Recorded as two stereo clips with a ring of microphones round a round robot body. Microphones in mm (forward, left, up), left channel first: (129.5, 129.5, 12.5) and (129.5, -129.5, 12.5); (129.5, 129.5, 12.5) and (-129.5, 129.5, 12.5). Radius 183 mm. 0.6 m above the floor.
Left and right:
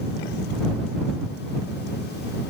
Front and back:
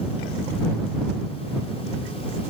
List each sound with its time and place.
Only background noise.